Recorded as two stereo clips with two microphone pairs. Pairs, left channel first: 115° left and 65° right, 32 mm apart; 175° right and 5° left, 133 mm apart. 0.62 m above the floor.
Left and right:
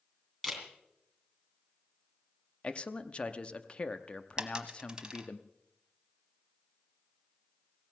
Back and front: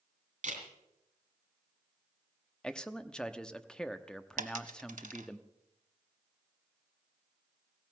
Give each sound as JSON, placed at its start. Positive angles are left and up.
{"t": 0.4, "sound": "a camera shutter", "azimuth_deg": 30, "distance_m": 3.0}
{"t": 2.6, "sound": "a man speaking", "azimuth_deg": 105, "distance_m": 0.7}
{"t": 4.4, "sound": "a dropped coin", "azimuth_deg": 0, "distance_m": 0.9}